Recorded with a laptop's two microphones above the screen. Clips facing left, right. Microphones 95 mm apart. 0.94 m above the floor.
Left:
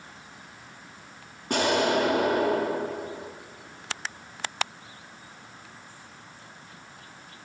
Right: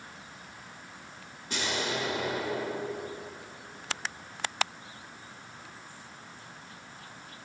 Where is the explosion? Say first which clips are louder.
Left 10 dB; 50° left (ahead or behind), 1.0 m.